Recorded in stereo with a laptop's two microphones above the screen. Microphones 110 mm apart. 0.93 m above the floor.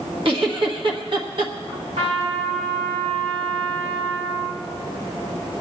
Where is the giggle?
50° right (ahead or behind), 1.3 m.